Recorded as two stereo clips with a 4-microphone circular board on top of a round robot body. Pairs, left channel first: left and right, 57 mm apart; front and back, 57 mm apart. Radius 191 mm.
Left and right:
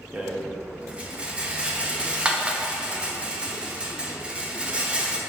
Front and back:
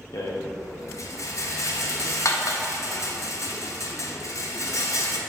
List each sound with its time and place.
0.1 s a rattle: 20° right, 1.1 m